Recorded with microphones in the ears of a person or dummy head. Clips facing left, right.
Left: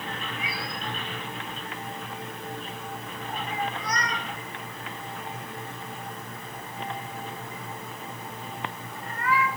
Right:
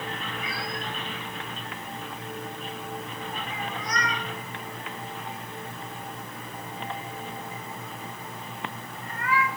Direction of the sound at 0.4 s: 10° left (ahead or behind).